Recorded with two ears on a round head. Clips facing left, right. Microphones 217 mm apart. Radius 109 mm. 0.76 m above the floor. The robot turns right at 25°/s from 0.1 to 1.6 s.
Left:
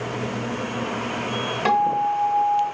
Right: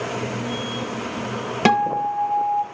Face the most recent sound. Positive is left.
turn(degrees=-65)  # may be behind; listen again after turning